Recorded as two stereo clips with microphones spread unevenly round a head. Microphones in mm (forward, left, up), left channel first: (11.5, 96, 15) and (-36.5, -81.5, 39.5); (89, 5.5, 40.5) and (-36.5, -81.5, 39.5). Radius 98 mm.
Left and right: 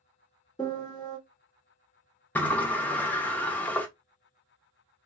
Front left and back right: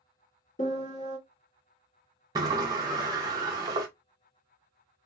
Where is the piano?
Straight ahead, 1.6 m.